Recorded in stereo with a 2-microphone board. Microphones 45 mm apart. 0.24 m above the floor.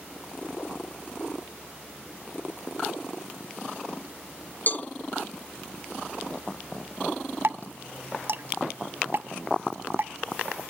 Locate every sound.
4.7 s a cowbell: 40° left (ahead or behind)
7.4 s dripping: 55° right (ahead or behind)